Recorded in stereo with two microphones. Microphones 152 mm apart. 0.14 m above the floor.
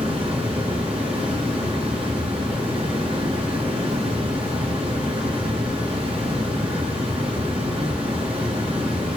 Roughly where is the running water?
Right.